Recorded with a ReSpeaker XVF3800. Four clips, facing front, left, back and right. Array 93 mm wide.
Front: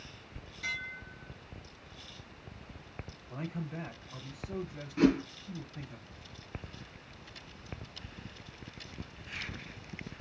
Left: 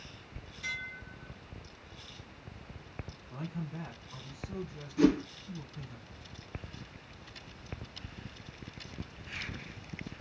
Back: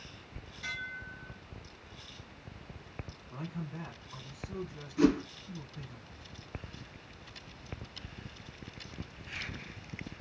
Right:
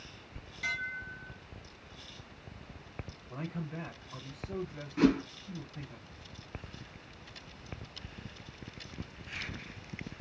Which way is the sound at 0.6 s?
90° right.